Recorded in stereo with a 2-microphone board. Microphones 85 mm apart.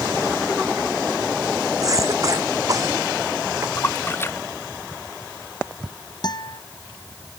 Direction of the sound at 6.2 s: 55° left (ahead or behind).